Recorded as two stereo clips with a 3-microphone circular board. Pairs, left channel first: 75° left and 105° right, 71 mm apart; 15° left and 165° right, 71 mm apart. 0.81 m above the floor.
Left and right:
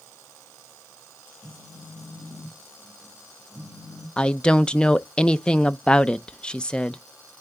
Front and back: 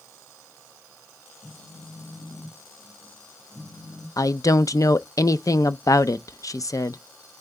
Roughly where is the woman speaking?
Ahead.